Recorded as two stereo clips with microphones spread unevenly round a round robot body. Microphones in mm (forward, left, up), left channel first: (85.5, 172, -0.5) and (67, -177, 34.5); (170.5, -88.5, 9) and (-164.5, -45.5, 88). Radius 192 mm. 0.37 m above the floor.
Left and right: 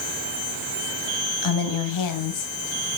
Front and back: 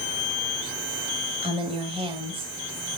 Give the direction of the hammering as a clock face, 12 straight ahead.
I don't hear hammering.